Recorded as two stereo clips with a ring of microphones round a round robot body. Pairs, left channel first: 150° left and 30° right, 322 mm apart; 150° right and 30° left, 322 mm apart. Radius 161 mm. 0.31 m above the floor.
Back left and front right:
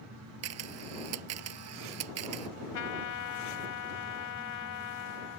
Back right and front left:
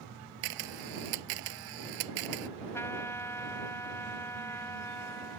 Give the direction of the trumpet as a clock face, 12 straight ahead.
8 o'clock.